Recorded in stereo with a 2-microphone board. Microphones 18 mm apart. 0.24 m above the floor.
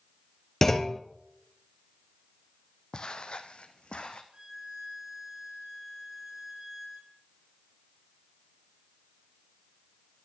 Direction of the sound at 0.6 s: 20° left (ahead or behind).